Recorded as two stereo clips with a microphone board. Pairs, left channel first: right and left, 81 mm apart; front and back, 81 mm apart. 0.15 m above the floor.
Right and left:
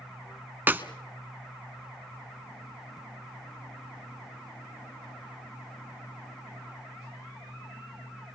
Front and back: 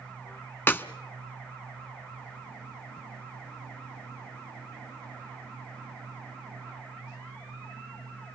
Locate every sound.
0.7 s a clap: 45° left, 1.1 m